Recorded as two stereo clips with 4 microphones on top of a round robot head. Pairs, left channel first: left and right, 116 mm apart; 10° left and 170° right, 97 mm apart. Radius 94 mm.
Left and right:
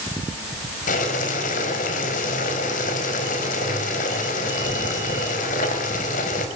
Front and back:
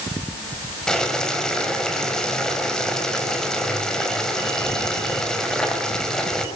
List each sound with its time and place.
0.9 s boiling: 95° left, 4.5 m